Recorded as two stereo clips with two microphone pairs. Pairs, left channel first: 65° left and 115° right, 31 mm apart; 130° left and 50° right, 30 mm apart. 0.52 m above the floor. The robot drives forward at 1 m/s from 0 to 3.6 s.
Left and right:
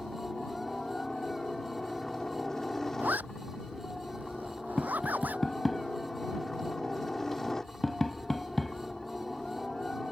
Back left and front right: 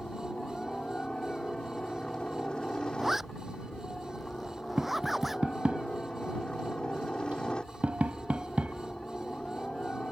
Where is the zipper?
130° right; by 5.5 s 135° right.